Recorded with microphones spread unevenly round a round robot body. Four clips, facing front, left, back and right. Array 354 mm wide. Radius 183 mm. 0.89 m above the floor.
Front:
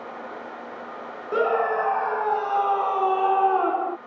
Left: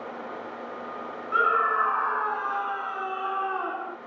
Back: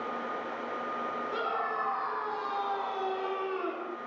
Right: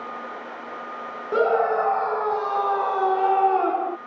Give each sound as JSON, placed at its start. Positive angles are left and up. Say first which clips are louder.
{"t": 1.3, "sound": "a scream", "louder": "right 4 dB, front 13 dB", "azimuth_deg": -55}